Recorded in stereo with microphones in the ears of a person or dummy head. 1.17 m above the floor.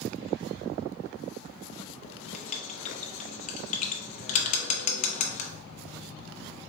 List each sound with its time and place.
2.0 s writing: 40° left (ahead or behind), 0.7 m